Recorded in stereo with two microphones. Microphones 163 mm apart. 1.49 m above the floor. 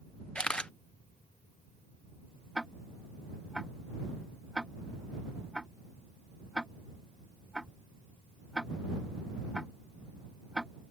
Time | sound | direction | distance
0.3 | a camera shutter | 5° left (ahead or behind) | ?
2.5 | ticking | centre (ahead or behind) | ?